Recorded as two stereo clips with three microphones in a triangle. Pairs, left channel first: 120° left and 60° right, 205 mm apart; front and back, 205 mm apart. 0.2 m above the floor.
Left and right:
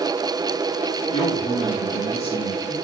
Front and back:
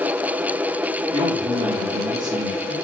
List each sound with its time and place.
1.1 s a man speaking: 135° left, 1.7 m